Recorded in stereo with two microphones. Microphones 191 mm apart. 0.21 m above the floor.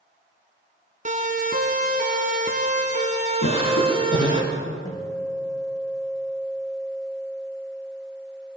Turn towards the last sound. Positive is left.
turn(degrees=15)  # may be behind; listen again after turning